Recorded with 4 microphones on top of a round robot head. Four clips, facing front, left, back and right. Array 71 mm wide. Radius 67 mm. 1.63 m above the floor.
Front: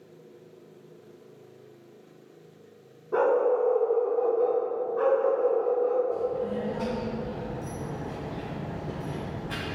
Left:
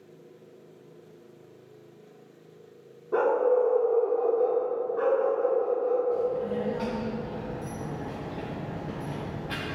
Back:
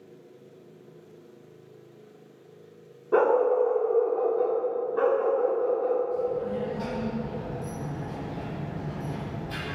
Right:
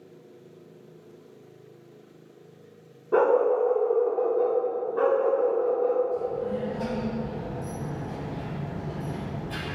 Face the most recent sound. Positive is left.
turn(degrees=65)